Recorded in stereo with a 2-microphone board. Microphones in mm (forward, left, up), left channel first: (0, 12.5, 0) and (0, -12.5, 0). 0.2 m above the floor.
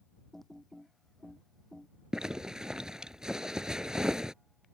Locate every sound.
0.3 s typing on a keyboard: 10° left (ahead or behind)
2.1 s a zipper: 30° right (ahead or behind)